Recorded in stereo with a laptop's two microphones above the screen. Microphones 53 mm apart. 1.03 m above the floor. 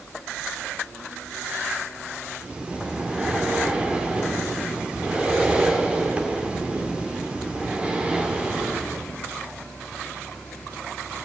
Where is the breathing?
20° right (ahead or behind), 2.5 m.